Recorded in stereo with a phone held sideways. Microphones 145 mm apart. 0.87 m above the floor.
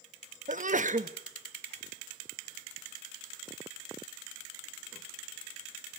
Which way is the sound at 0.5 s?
60° right (ahead or behind).